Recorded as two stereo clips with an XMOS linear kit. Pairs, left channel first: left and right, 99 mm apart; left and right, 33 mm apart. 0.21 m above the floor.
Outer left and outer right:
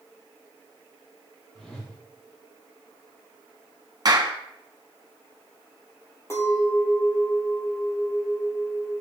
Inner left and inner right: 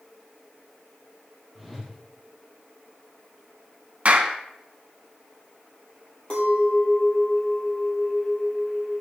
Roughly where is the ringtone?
I don't hear a ringtone.